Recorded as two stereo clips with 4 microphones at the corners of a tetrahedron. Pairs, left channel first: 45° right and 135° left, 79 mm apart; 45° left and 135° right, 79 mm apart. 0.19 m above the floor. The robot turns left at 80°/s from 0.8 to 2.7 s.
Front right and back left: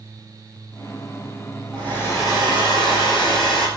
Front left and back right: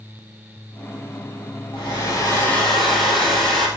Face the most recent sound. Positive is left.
turn(degrees=-40)